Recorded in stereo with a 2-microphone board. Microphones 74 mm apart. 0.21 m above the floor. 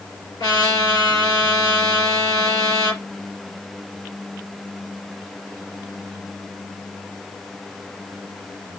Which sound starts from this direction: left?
A trumpet, at 0.4 s.